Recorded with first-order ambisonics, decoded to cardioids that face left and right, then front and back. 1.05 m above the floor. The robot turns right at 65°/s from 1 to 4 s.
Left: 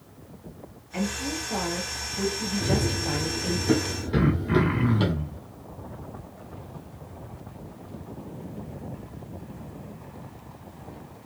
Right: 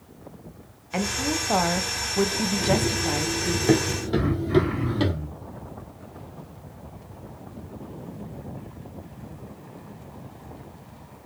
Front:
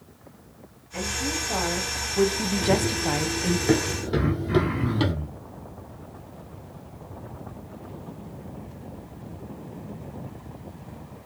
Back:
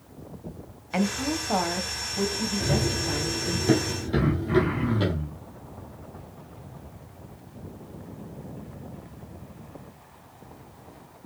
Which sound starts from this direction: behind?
Running footsteps, at 2.6 s.